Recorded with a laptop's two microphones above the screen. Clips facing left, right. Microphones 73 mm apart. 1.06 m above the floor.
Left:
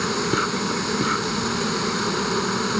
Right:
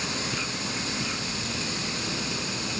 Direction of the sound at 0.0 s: 55° left (ahead or behind).